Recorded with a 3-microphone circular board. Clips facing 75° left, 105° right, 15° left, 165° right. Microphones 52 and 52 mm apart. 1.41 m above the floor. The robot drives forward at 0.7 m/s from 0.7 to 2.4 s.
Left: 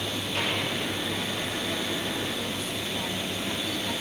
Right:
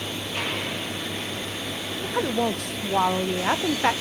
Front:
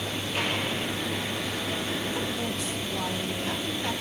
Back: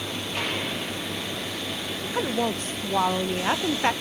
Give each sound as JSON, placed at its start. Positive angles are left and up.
{"t": 2.0, "sound": "a woman speaking", "azimuth_deg": -100, "distance_m": 0.7}